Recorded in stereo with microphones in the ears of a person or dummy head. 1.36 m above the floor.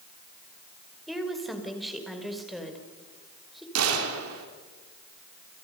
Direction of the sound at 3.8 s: 90° right.